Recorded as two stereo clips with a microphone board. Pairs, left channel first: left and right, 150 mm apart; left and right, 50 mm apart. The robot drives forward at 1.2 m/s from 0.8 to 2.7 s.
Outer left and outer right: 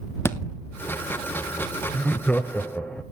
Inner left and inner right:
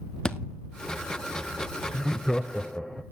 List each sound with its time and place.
0.2 s a thud: 15° left (ahead or behind), 0.9 m
1.9 s laughter: 10° left (ahead or behind), 0.9 m